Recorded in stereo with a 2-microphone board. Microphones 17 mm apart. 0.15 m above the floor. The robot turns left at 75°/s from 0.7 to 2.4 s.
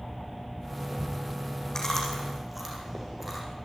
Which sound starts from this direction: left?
Chewing, at 1.8 s.